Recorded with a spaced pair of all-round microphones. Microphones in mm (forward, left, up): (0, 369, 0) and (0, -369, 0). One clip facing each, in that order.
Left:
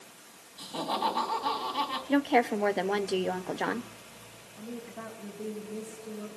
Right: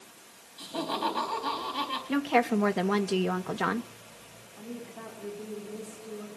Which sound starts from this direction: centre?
A woman speaking, at 4.6 s.